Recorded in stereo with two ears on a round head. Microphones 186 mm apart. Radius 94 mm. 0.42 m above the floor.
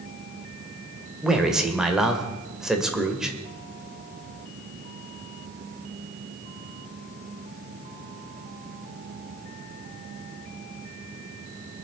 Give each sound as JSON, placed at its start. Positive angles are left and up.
{"t": 1.2, "sound": "a man speaking", "side_deg": -5, "distance_m": 1.6}